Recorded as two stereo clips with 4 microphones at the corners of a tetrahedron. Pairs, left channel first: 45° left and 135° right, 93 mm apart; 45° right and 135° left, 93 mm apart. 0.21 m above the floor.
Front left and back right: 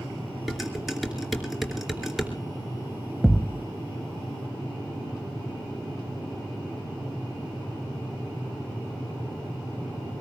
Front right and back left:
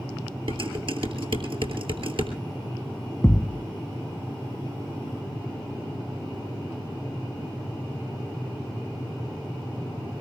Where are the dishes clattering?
135° left, 2.5 m.